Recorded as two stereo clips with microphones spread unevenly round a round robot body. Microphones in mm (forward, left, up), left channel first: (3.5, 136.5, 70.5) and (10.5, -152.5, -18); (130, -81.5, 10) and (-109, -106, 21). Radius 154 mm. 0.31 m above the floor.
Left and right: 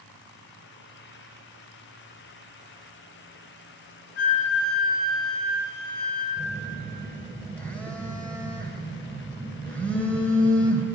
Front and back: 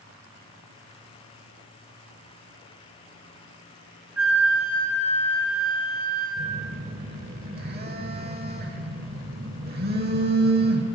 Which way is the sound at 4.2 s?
100° left.